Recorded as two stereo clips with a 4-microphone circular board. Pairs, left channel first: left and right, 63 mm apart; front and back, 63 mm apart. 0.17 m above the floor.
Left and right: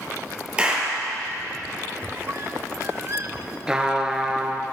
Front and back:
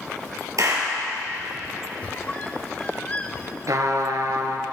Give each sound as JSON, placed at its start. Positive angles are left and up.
{"t": 0.6, "sound": "a clap", "azimuth_deg": -160, "distance_m": 4.0}
{"t": 2.0, "sound": "a squeak", "azimuth_deg": -60, "distance_m": 0.8}
{"t": 3.7, "sound": "a trumpet", "azimuth_deg": -165, "distance_m": 1.4}